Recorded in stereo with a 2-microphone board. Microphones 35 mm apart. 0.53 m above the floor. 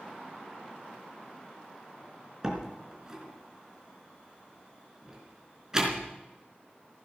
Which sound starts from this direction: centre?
A door slam, at 2.4 s.